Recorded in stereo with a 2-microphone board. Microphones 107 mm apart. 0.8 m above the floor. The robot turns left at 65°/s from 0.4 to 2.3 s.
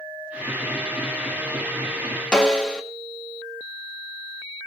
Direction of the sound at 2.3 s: 5° left (ahead or behind).